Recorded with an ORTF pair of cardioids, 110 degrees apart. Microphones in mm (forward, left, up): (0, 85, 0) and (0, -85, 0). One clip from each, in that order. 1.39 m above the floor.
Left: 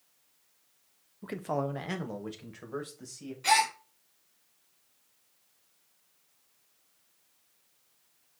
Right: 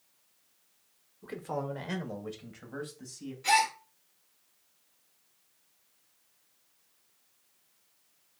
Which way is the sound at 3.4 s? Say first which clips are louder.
Even; 30° left.